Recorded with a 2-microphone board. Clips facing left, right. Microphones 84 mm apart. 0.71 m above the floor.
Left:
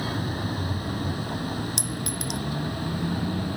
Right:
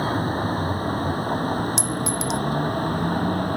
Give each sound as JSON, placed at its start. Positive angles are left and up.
{"t": 0.0, "sound": "a vehicle", "side_deg": -40}
{"t": 1.8, "sound": "a clink", "side_deg": 55}